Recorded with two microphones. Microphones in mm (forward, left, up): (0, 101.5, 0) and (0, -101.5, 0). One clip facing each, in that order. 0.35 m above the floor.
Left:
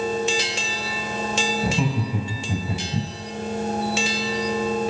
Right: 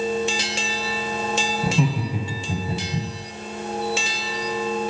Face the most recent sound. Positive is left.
turn(degrees=15)  # may be behind; listen again after turning